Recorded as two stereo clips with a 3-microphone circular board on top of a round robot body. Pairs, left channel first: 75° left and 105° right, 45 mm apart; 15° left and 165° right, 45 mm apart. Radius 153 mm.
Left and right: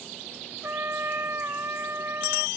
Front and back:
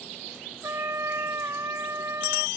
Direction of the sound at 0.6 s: 145° right.